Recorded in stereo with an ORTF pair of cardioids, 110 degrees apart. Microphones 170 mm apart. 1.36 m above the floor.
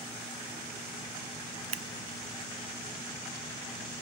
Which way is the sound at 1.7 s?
40° right.